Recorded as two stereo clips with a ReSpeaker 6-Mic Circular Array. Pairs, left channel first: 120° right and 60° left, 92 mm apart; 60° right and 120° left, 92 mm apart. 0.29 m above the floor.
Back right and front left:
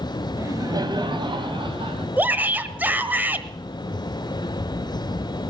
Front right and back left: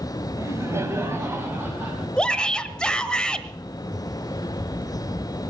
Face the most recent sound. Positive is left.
turn(degrees=10)